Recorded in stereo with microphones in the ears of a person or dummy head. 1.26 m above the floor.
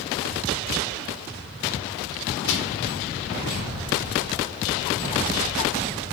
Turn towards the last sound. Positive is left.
turn(degrees=70)  # may be behind; listen again after turning